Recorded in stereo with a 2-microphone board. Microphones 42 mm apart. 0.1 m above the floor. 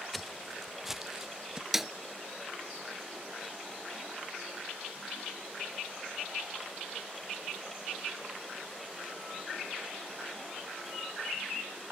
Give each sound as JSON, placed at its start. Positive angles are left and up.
{"t": 0.1, "sound": "footsteps", "side_deg": 0}
{"t": 1.7, "sound": "a snare drum", "side_deg": -5}